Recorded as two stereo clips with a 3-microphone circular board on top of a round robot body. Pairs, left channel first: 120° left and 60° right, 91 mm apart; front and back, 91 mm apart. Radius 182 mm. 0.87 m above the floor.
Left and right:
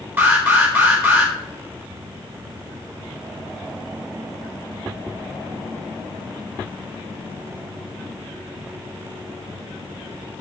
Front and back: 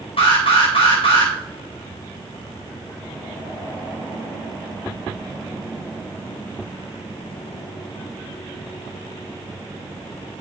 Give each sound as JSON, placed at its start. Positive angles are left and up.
{"t": 0.2, "sound": "an alarm", "azimuth_deg": 5, "distance_m": 4.5}